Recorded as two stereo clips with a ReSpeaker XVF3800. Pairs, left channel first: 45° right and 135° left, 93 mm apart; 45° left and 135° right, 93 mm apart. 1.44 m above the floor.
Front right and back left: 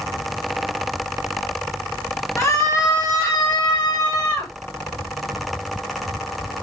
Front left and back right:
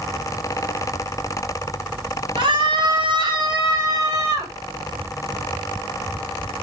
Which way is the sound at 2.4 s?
110° right.